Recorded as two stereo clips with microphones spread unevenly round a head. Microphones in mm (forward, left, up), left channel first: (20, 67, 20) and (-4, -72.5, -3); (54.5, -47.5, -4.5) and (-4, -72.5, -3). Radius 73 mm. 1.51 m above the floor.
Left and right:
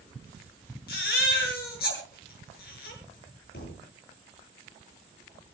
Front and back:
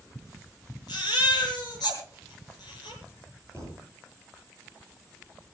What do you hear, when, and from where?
0.9 s a baby crying: 70° left, 7.5 m
3.5 s a thud: 100° left, 9.5 m